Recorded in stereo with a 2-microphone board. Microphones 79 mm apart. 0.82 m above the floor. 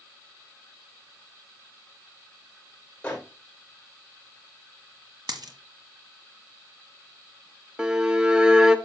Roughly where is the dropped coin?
Right.